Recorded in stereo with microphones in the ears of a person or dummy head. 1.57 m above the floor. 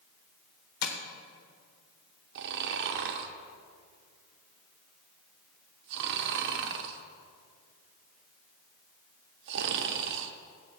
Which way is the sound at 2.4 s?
65° right (ahead or behind).